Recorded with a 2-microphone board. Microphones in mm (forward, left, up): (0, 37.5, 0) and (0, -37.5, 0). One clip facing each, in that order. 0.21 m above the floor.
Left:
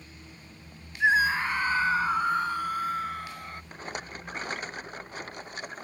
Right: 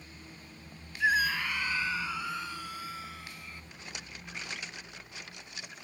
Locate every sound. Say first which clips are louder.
1.0 s a scream: left 5 dB; 30° left (ahead or behind); by 3.6 s 55° left (ahead or behind)
3.7 s a rattle: left 11 dB; 45° left (ahead or behind)